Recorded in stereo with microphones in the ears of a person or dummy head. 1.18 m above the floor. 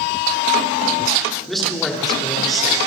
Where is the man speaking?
Centre (ahead or behind), 3.5 m.